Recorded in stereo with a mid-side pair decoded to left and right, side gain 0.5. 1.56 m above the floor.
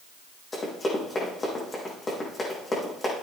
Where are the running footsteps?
25° left, 5.5 m.